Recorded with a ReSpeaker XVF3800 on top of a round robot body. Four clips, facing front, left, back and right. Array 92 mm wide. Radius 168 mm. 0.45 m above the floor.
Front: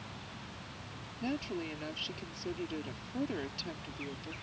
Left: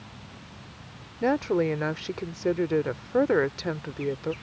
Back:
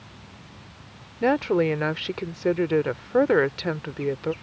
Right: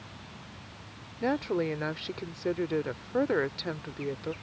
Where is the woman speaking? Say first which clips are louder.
Left 5 dB, back 16 dB; 165° left.